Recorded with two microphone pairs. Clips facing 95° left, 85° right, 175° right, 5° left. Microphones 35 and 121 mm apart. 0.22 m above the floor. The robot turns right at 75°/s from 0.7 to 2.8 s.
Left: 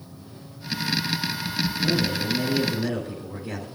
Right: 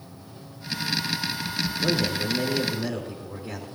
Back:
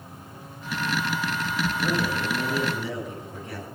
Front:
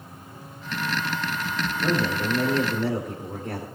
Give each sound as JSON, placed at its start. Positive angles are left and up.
{"t": 1.8, "sound": "a man speaking", "azimuth_deg": -75, "distance_m": 4.0}